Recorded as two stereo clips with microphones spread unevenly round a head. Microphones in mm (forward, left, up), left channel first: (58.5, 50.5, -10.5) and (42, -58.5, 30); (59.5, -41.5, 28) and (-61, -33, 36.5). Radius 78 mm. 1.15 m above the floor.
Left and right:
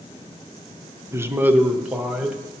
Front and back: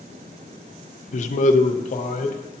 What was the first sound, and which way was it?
A man speaking, 25° right.